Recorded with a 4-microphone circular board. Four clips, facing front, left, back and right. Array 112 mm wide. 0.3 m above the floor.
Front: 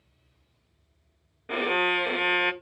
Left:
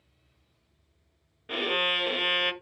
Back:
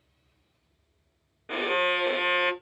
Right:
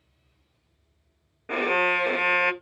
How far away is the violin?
About 0.8 m.